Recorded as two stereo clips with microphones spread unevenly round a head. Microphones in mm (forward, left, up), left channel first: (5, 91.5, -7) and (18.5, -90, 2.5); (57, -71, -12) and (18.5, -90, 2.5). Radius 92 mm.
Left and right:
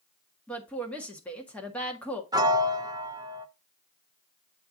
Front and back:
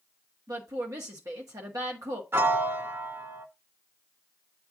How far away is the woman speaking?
About 1.6 m.